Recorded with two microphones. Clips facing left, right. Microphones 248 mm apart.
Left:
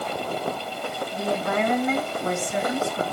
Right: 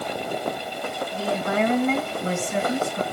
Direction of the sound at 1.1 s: 35° right (ahead or behind).